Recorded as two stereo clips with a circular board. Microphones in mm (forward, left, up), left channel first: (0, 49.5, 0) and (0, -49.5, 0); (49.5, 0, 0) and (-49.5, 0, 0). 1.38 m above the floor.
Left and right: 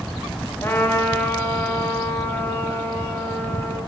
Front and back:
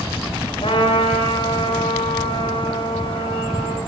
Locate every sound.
0.6 s a trumpet: 20° left, 3 m